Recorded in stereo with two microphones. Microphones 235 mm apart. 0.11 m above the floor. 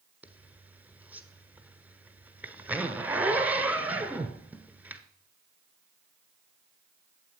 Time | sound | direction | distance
0.2 | a zipper | 5° right (ahead or behind) | 1.3 m